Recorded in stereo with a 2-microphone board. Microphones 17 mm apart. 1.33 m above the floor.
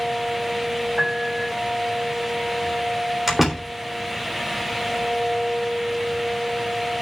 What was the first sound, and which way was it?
A piano, 5° left (ahead or behind).